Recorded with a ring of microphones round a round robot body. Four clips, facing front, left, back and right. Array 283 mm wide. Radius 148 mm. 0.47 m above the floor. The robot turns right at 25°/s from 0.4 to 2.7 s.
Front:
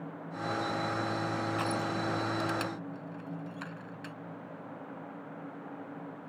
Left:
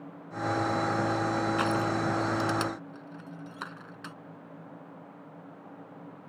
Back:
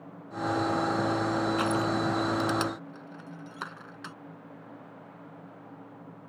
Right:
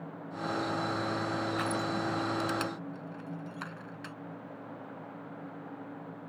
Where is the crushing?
125° left; by 4.2 s 150° left.